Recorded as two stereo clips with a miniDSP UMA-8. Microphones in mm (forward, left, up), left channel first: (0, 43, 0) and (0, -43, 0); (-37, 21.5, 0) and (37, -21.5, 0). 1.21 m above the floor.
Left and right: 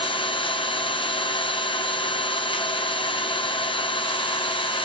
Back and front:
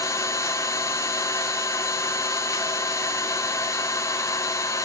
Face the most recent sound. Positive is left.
turn(degrees=95)